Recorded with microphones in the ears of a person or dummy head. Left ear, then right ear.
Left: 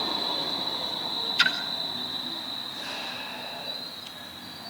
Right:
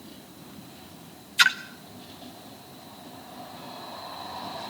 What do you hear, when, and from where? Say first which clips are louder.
1.4 s a splash: right 4 dB; 25° right (ahead or behind), 1.0 m